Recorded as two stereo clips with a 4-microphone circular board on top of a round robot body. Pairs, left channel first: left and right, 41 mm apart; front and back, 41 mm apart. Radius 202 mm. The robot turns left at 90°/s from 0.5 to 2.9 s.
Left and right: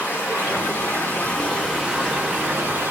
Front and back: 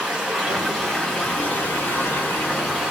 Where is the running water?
115° left, 3 m; by 2.9 s 100° right, 3 m.